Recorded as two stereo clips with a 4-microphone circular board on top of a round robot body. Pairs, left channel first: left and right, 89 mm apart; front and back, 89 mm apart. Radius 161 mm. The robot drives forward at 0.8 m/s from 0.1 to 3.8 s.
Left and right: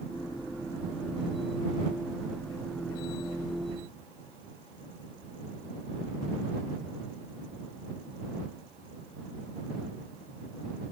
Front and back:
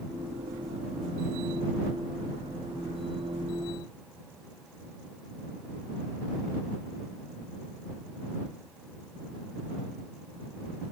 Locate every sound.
Only background noise.